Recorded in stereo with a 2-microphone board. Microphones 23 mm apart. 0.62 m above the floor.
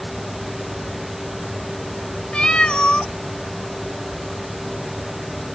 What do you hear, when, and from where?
2.3 s a cat meowing: 45° left (ahead or behind), 0.8 m